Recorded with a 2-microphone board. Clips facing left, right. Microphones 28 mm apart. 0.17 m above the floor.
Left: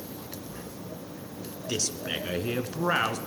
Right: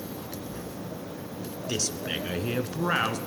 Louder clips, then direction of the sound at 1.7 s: Even; centre (ahead or behind).